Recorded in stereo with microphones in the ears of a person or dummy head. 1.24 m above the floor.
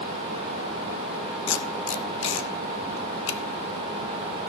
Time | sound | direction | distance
1.5 | tape being pulled | 65° left (ahead or behind) | 0.8 m